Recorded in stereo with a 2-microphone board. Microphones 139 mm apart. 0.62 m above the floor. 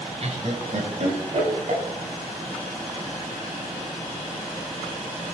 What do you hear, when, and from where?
0.2 s laughter: 50° right (ahead or behind), 2.5 m; by 1.8 s 55° right (ahead or behind), 4.5 m